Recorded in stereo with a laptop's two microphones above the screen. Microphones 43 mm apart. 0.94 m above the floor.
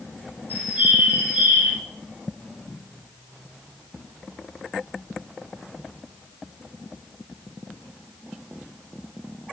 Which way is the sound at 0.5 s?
30° right (ahead or behind).